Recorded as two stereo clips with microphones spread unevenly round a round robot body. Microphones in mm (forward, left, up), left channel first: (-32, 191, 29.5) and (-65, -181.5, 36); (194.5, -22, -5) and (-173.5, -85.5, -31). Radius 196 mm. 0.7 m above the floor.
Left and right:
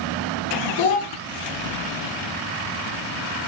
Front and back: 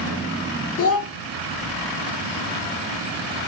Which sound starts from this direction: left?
A child speaking, at 0.8 s.